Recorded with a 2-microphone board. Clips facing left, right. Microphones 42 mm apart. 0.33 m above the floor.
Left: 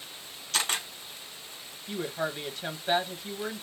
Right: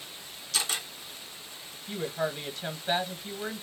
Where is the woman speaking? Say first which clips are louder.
Right 1 dB; 5° left (ahead or behind), 1.6 m.